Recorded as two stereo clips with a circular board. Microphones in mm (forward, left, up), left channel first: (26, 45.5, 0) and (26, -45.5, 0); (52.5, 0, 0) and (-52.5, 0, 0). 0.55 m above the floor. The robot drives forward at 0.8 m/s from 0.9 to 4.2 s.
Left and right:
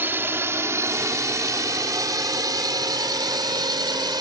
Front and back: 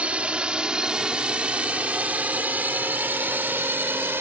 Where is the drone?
120° right; by 4.2 s 115° right.